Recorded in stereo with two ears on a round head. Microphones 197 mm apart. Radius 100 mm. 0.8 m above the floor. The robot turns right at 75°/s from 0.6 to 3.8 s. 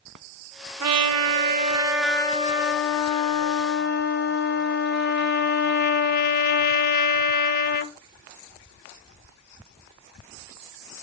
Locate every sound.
0.8 s a trumpet: 95° right, 0.8 m; by 7.9 s 130° left, 0.8 m